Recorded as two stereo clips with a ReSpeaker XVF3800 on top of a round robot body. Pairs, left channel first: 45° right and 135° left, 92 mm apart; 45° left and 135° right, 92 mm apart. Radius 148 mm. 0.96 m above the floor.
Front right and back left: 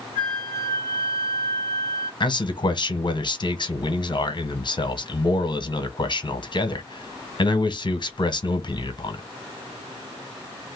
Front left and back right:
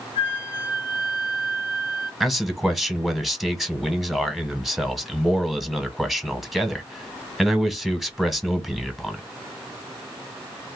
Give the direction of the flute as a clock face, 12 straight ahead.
7 o'clock.